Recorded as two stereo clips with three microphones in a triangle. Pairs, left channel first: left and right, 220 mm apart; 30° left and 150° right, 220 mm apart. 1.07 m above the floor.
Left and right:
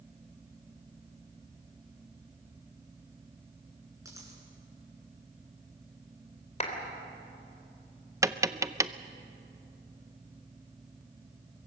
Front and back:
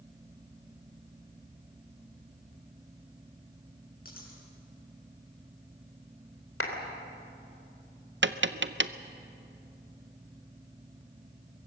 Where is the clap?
35° left, 2.5 m.